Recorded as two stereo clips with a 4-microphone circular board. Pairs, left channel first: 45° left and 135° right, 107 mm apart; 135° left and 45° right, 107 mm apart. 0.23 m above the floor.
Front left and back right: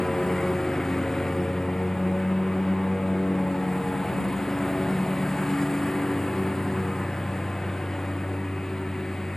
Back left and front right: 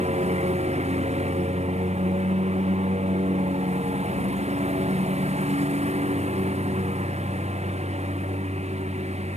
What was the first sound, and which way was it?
A lawn mower, 40° right.